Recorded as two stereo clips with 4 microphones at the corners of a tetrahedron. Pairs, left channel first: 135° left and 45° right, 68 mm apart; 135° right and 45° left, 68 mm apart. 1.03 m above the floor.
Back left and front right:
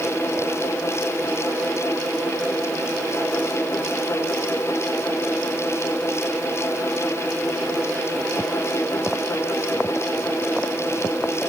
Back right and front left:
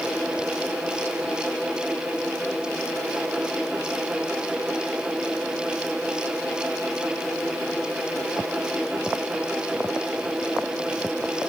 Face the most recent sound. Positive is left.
No sound to turn to.